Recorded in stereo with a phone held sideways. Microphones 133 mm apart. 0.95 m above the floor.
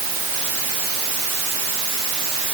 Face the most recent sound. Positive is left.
No sound to turn to.